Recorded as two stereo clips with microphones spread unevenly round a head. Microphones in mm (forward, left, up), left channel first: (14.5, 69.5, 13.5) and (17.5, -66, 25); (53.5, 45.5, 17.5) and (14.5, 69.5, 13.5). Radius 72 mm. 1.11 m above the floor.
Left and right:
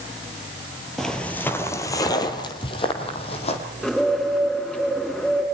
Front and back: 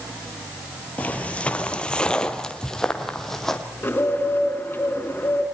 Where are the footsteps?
Straight ahead, 1.5 m; by 3.6 s 45° left, 2.5 m.